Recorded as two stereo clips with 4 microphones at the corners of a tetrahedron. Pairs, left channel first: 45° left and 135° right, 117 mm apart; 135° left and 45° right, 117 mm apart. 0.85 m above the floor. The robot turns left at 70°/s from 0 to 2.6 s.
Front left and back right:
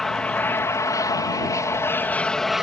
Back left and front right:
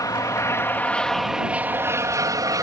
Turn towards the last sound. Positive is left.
turn(degrees=-50)